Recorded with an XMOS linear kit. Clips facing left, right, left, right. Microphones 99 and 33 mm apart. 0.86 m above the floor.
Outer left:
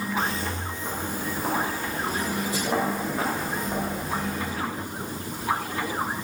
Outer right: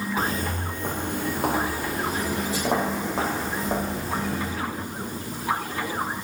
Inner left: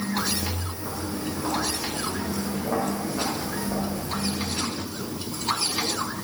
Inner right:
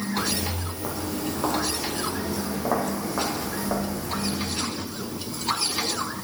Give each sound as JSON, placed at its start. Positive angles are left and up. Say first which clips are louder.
{"t": 0.2, "sound": "footsteps", "louder": "outer right 2 dB, inner right 1 dB", "side_deg": -40, "distance_m": 1.3}